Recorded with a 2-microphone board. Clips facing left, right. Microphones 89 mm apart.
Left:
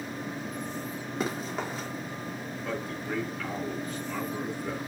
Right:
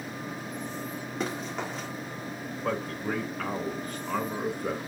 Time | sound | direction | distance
1.2 | running footsteps | 5° left (ahead or behind) | 3.5 m
2.6 | a man speaking | 50° right (ahead or behind) | 2.5 m